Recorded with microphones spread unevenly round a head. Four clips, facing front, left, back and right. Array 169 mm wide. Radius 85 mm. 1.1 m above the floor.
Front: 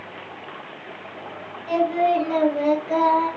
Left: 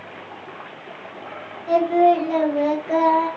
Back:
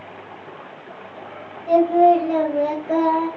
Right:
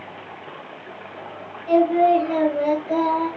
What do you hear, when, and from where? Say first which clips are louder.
1.7 s singing: even, back 6 dB; 150° left, 1.2 m